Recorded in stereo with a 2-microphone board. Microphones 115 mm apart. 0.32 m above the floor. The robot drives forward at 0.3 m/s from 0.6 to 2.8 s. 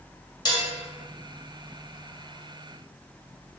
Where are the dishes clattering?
35° left (ahead or behind), 0.6 m.